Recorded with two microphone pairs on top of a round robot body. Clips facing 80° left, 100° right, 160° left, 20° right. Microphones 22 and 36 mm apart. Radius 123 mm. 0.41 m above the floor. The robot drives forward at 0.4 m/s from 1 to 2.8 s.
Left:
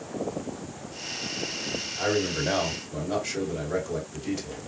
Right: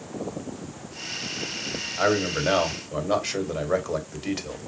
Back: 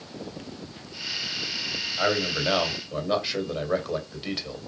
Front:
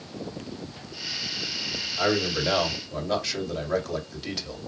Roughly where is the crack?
I don't hear a crack.